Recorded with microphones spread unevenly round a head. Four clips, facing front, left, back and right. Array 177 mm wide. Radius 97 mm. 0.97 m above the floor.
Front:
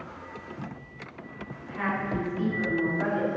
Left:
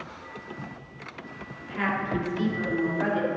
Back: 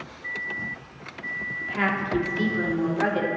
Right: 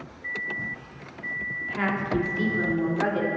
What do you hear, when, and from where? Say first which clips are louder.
1.6 s a woman speaking: even, back 4 dB; straight behind, 3 m; by 3.3 s 170° right, 3.5 m